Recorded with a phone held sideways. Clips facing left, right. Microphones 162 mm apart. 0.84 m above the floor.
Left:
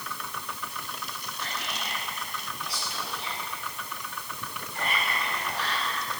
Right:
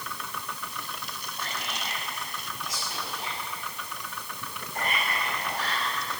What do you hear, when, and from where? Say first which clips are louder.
1.4 s whispering: right 1 dB; 45° right (ahead or behind), 7.5 m